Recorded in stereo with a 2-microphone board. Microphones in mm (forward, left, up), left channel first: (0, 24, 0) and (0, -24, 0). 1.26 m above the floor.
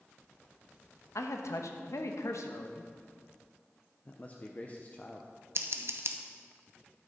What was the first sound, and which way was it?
A man speaking, 75° left (ahead or behind).